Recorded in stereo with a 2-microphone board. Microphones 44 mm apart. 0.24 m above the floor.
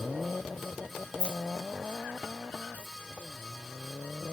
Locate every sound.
1.2 s keys jangling: 25° left (ahead or behind), 0.7 m; by 2.9 s 45° left (ahead or behind), 1.4 m